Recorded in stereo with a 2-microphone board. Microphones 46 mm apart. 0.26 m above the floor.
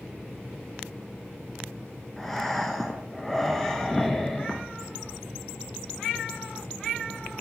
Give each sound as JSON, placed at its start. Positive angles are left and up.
{"t": 2.2, "sound": "breathing", "side_deg": 10, "distance_m": 0.5}